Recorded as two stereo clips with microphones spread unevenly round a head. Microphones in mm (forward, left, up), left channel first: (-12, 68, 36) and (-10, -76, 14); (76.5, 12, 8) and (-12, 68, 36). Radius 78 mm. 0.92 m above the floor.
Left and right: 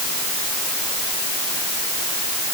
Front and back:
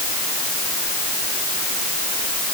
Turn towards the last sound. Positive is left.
No sound to turn to.